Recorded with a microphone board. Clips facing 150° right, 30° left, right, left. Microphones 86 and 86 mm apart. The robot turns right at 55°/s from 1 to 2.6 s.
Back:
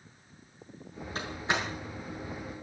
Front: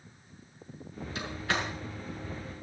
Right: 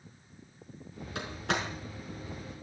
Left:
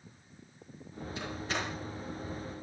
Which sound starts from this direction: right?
A door slam, at 1.1 s.